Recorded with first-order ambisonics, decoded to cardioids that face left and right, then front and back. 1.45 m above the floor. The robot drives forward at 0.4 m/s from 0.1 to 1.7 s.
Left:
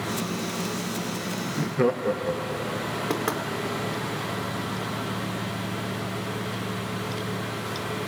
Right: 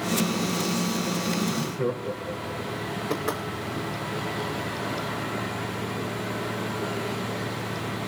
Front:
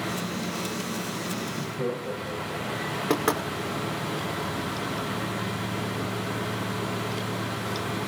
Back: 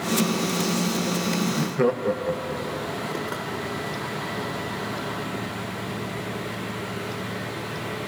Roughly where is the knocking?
Ahead left.